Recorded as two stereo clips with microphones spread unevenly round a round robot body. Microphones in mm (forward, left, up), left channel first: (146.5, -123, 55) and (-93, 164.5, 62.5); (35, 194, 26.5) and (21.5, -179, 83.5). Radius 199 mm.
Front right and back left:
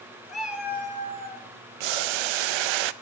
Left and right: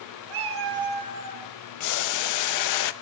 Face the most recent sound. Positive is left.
turn(degrees=125)